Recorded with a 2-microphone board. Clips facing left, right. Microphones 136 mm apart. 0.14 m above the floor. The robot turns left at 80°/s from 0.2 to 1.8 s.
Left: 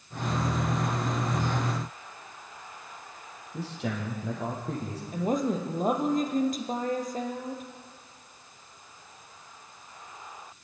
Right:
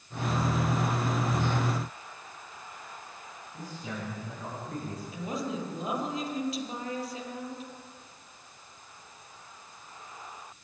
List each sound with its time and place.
3.5 s a man speaking: 75° left (ahead or behind), 5.5 m
5.1 s a woman speaking: 45° left (ahead or behind), 3 m